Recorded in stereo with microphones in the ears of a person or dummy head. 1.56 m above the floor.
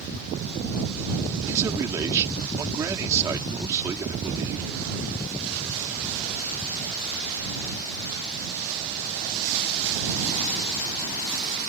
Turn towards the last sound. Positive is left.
turn(degrees=-15)  # may be behind; listen again after turning